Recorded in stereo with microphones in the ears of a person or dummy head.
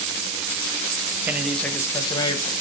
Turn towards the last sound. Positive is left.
turn(degrees=25)  # may be behind; listen again after turning